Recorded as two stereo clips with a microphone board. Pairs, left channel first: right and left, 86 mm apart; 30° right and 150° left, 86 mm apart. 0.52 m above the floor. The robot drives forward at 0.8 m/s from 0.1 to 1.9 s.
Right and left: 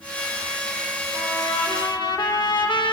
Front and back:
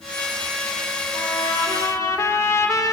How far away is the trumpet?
About 1.0 m.